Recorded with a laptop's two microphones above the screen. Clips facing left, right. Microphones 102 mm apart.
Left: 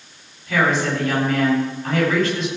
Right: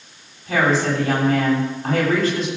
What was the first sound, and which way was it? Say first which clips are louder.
A woman speaking: right 1 dB; 45° right (ahead or behind).